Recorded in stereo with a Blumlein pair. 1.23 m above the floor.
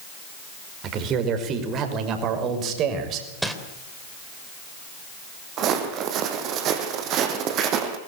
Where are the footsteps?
35° right, 4 m.